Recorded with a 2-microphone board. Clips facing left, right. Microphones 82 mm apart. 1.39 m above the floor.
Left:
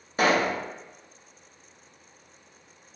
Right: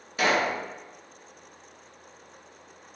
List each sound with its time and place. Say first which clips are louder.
0.2 s a pop: left 2 dB; 35° left (ahead or behind), 0.6 m